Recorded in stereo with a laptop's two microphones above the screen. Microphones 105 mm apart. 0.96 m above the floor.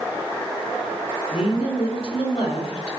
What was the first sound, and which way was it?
A woman speaking, 65° left (ahead or behind).